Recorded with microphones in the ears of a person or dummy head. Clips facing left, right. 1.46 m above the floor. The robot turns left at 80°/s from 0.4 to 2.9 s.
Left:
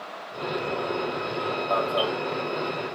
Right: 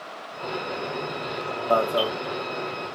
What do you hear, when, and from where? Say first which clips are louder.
1.7 s an alarm: right 4 dB; 125° right, 1.2 m; by 2.1 s 160° right, 1.2 m